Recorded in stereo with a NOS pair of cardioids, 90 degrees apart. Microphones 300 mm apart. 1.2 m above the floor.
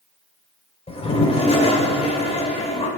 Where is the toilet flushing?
20° left, 2.5 m.